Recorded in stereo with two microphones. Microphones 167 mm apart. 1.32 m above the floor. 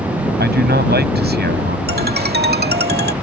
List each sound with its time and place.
0.4 s a man speaking: 80° right
1.9 s a ringtone: 75° right (ahead or behind)